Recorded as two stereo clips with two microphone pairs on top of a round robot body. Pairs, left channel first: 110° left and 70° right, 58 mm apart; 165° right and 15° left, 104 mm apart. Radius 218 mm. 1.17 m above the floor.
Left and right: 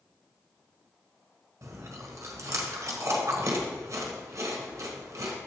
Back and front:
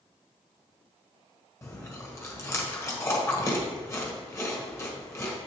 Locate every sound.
1.6 s chewing: 100° right, 1.3 m